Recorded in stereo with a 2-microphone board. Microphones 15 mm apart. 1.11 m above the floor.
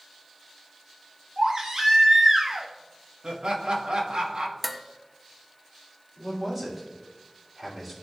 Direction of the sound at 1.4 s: 45° right (ahead or behind).